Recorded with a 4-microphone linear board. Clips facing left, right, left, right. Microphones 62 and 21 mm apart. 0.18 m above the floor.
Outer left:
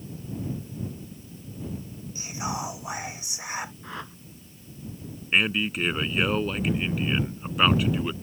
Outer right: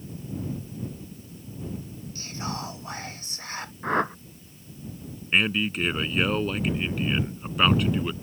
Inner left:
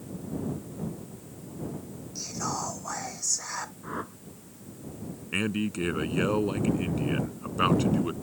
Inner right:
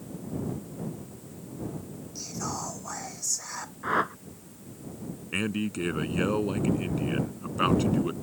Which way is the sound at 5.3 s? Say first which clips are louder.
Even, inner left 1 dB; 5° left (ahead or behind).